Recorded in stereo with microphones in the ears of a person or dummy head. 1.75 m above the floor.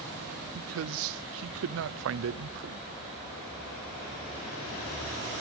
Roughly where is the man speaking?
Right.